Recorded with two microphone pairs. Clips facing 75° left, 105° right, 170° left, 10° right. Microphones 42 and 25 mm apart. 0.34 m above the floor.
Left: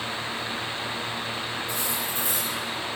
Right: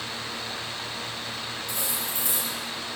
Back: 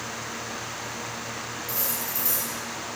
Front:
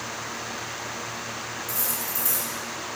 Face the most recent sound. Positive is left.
turn(degrees=-135)